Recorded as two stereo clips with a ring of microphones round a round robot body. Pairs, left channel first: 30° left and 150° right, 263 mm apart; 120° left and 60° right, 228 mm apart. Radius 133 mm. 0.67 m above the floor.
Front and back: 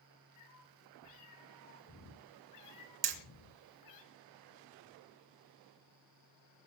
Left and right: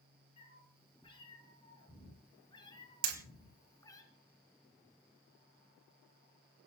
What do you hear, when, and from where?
0.4 s a cat meowing: 50° left, 8.5 m; by 4.0 s 45° left, 4.5 m
3.0 s hammering: 105° right, 2.5 m